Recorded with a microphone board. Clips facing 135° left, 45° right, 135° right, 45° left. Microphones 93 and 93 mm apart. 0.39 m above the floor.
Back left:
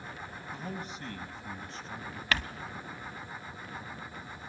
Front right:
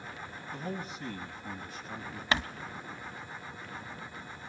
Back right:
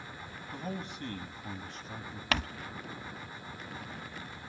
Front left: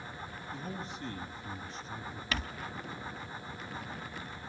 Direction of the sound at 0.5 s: 135° right.